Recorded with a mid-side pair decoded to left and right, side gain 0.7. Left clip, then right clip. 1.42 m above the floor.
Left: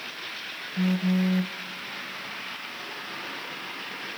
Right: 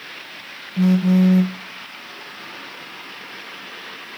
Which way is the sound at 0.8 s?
30° right.